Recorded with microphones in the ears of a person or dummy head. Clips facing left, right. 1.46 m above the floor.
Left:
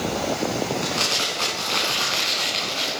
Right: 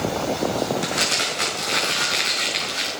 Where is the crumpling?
25° right (ahead or behind), 4 m.